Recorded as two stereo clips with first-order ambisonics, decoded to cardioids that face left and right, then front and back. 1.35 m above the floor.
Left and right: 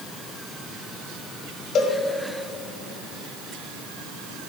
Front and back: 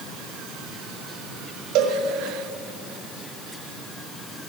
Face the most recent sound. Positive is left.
turn(degrees=150)